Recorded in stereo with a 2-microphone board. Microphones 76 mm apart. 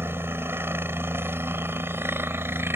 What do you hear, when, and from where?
0.0 s a helicopter: 30° right (ahead or behind)